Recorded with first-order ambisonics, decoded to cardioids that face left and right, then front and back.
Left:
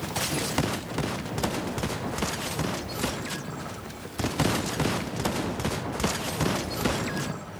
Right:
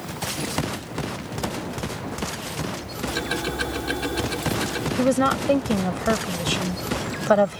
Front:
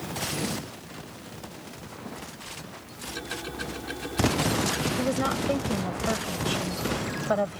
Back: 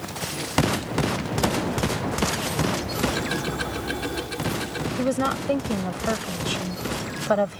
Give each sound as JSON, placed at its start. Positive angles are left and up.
{"t": 3.1, "sound": "ticking", "azimuth_deg": -110}
{"t": 5.0, "sound": "a woman speaking", "azimuth_deg": -105}